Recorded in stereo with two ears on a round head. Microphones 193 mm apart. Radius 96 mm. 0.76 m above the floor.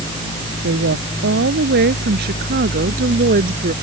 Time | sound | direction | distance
0.6 | a woman speaking | 55° right (ahead or behind) | ?